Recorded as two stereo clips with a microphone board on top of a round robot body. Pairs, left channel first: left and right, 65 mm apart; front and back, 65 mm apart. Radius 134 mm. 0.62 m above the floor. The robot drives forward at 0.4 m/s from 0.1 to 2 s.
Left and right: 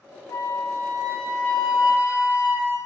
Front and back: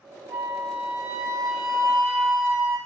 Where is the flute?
115° left, 1.5 m; by 2.8 s 135° left, 1.9 m.